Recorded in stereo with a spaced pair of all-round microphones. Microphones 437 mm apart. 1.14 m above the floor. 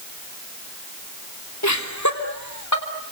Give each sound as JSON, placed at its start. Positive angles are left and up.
{"t": 1.6, "sound": "laughter", "side_deg": 40, "distance_m": 2.5}